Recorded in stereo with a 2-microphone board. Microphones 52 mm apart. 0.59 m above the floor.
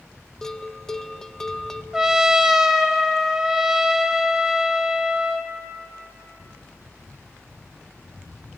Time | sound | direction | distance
0.4 | a bell | 10° left (ahead or behind) | 0.8 m
1.9 | a trumpet | 10° right (ahead or behind) | 0.9 m